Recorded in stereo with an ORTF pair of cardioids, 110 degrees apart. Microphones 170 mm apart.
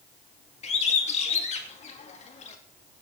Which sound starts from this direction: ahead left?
A bird, at 0.6 s.